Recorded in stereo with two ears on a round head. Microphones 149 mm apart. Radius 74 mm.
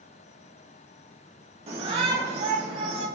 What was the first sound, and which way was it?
A shout, 40° right (ahead or behind).